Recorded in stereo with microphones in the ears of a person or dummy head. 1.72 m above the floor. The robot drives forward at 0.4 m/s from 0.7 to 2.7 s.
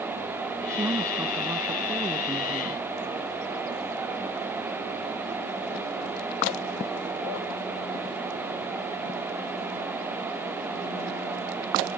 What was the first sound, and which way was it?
A woman speaking, 10° right (ahead or behind).